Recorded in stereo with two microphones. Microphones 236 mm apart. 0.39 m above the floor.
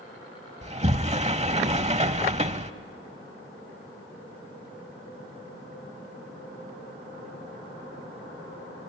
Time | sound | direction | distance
0.6 | a sliding door | 30° right (ahead or behind) | 0.8 m